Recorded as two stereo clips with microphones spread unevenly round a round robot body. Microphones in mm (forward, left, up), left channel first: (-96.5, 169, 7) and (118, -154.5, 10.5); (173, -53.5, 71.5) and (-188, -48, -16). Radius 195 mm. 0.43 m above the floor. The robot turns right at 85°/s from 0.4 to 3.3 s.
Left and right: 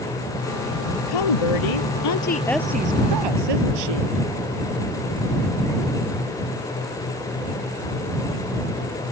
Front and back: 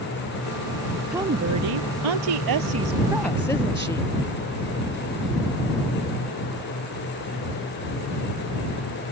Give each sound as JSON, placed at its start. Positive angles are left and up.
{"t": 1.1, "sound": "a woman speaking", "azimuth_deg": 90}